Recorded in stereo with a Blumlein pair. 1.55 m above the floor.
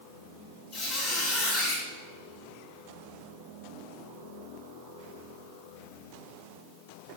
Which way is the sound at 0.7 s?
35° left.